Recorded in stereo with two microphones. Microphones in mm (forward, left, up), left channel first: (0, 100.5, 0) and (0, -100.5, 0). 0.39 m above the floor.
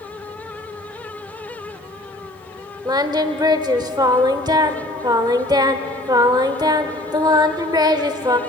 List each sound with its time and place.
2.9 s singing: 20° right (ahead or behind), 0.8 m